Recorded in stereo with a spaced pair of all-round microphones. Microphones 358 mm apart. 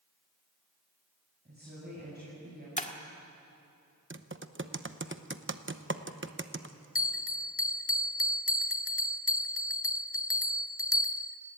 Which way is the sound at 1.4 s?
30° right (ahead or behind).